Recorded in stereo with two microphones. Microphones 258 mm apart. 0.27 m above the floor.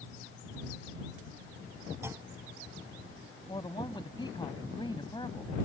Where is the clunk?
10° right (ahead or behind).